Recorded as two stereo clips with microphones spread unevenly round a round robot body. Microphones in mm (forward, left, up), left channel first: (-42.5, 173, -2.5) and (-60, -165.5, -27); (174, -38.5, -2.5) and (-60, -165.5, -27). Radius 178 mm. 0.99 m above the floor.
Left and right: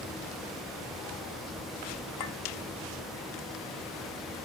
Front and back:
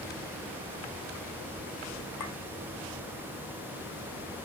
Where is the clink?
65° left, 2 m.